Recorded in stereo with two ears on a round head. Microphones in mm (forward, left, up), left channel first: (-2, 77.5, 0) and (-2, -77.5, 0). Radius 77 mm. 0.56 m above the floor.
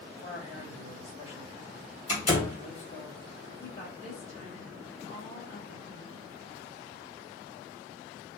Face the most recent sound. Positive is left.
turn(degrees=35)  # may be behind; listen again after turning